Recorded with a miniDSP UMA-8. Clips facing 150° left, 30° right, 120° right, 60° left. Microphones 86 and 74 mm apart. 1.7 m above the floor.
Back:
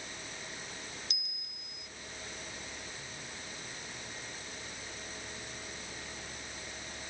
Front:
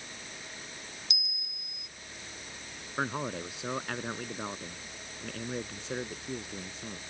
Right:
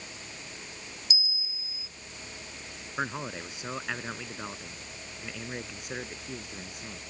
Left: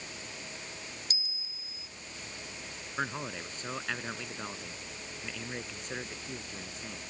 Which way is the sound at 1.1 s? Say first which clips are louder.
Front 4 dB, right 6 dB; 105° left.